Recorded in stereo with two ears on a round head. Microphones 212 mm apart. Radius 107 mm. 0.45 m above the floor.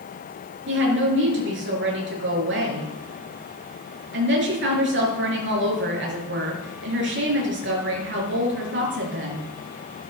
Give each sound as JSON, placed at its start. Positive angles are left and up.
{"t": 0.7, "sound": "a woman speaking", "side_deg": -55, "distance_m": 6.0}